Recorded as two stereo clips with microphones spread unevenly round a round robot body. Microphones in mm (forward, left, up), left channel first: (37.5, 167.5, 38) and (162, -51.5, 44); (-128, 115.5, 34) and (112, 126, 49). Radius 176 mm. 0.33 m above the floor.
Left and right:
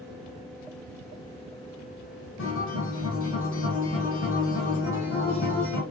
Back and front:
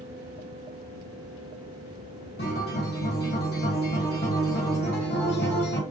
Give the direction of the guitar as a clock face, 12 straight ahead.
7 o'clock.